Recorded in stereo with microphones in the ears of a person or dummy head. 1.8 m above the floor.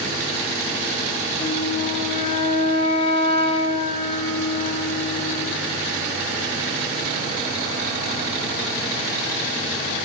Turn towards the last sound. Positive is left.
turn(degrees=35)  # may be behind; listen again after turning